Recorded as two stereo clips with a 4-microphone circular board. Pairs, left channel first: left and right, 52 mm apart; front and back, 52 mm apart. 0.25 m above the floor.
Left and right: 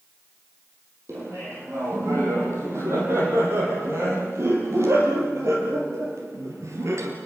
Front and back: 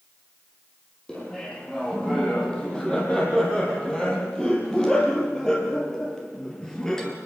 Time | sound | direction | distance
1.1 | laughter | 75° right | 8.5 m